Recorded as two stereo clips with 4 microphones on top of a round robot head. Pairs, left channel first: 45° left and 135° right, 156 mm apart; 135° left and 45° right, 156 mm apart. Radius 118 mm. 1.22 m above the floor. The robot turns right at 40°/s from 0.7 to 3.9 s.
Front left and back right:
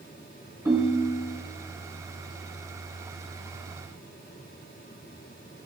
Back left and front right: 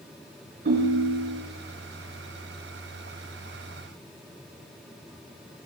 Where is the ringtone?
65° right, 4 m; by 1.4 s 35° right, 4 m.